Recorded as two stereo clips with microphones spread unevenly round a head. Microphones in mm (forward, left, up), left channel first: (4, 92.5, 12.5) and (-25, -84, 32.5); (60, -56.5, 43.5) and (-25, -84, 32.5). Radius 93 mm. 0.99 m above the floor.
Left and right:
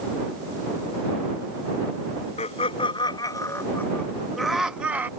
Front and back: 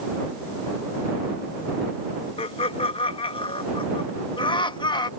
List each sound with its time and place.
2.4 s laughter: 30° left; by 5.1 s 20° right